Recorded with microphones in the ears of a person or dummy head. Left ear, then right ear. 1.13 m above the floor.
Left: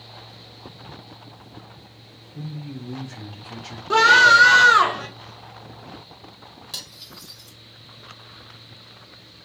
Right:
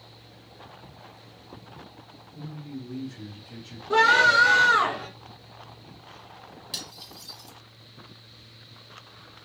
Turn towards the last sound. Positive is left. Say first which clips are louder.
# left 1 dB
turn(degrees=-5)  # may be behind; listen again after turning